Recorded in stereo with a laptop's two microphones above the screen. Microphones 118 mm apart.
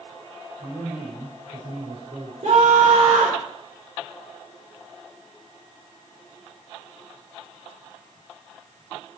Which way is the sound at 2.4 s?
80° right.